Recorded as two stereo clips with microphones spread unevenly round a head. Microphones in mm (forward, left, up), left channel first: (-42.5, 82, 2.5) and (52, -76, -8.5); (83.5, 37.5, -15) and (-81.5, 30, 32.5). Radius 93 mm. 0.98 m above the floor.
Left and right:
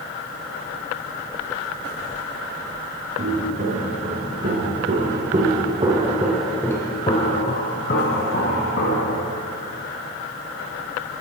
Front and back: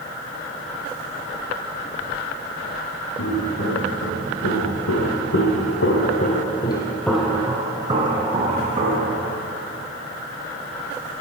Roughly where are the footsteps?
Ahead.